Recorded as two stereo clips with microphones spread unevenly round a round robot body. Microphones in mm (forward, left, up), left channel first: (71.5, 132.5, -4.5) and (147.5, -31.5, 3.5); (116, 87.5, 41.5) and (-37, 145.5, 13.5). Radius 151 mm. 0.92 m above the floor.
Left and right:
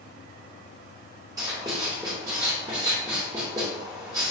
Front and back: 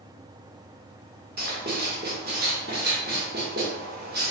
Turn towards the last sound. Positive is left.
turn(degrees=-140)